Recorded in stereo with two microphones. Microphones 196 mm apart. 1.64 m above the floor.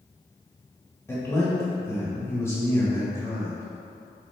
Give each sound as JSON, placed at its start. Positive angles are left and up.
{"t": 1.1, "sound": "a man speaking", "side_deg": 15, "distance_m": 1.9}